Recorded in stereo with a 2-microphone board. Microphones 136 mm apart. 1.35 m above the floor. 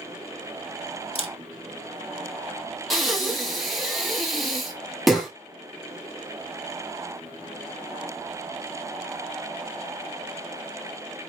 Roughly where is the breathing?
Centre.